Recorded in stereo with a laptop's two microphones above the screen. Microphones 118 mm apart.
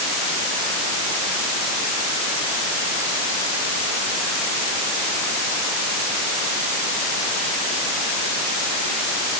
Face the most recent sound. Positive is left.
No sound to turn to.